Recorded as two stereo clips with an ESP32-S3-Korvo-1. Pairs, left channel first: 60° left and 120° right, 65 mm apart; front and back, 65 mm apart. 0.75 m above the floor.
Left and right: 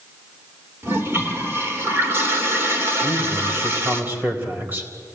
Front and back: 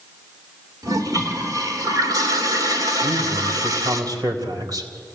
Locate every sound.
0.8 s a toilet flushing: 170° right, 3 m
3.0 s a man speaking: straight behind, 4 m